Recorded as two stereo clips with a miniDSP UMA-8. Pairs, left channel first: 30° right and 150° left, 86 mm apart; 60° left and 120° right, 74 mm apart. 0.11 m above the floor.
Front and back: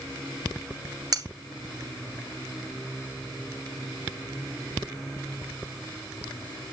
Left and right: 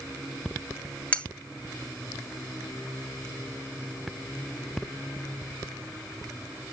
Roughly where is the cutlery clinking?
Behind left.